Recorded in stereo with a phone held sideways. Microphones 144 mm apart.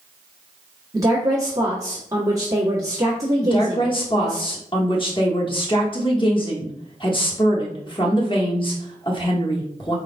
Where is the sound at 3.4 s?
35° left (ahead or behind), 1.1 m.